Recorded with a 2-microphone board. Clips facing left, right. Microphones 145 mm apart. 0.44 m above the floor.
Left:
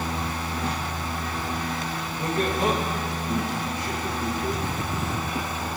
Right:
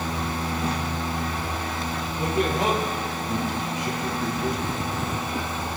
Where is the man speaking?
20° right (ahead or behind), 9.5 m.